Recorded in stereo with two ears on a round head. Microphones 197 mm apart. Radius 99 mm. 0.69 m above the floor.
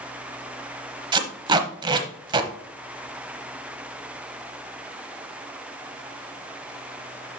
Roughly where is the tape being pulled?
Right.